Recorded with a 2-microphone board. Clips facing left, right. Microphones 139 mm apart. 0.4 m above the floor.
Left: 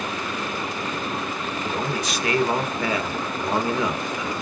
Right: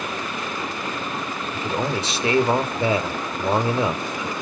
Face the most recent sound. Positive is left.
turn(degrees=-30)  # may be behind; listen again after turning